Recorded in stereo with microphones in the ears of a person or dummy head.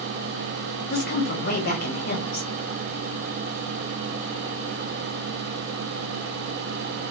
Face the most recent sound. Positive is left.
turn(degrees=45)  # may be behind; listen again after turning